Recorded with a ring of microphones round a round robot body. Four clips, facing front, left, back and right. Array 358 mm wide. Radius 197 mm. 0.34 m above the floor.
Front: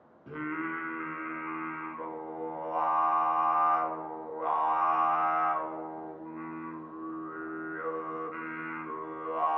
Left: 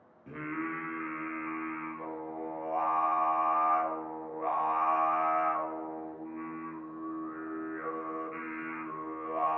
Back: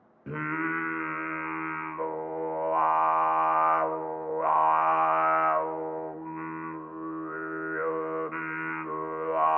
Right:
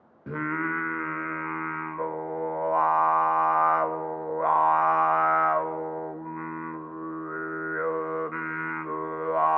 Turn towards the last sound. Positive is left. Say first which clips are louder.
# right 7 dB, back 4 dB
turn(degrees=-120)